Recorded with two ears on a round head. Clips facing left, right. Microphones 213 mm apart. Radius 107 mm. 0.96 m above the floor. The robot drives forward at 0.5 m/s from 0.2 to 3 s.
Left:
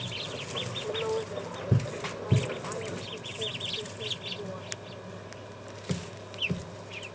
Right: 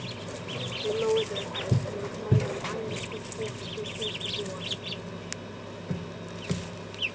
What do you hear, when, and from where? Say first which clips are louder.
0.8 s a woman speaking: right 6 dB; 50° right (ahead or behind); by 5.6 s 35° right (ahead or behind)